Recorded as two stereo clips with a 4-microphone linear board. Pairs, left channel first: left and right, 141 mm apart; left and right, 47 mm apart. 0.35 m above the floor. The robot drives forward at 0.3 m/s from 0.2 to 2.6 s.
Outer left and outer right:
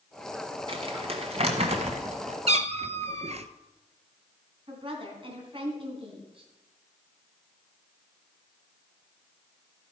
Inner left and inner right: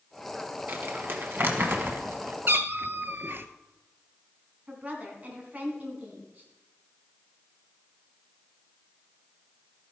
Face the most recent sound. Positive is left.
turn(degrees=-40)  # may be behind; listen again after turning